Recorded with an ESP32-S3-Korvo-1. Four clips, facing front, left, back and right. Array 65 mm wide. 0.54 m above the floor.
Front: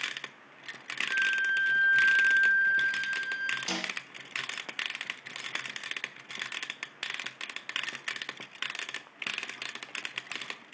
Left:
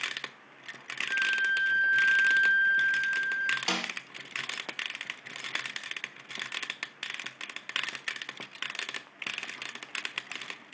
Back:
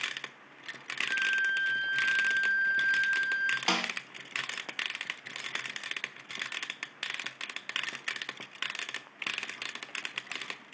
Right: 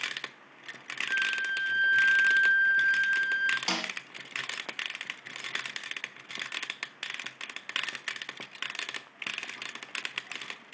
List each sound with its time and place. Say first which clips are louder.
1.1 s a flute: left 2 dB, front 1 dB; 70° right, 2.5 m
3.7 s a snare drum: left 1 dB, back 5 dB; straight behind, 0.7 m